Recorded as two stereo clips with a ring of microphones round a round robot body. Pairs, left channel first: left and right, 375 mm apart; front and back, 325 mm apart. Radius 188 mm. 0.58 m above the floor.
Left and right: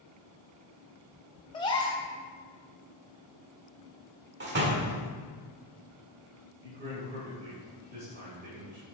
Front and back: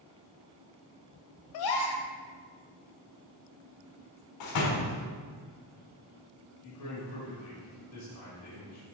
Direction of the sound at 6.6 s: 25° right.